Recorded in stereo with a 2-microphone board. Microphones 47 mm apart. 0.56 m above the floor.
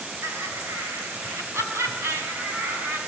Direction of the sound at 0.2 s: 80° right.